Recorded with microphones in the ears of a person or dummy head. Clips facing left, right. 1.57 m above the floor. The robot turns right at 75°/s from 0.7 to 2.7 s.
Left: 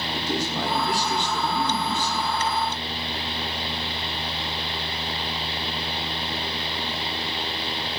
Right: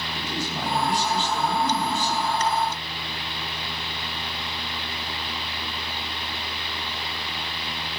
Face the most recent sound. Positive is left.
turn(degrees=-85)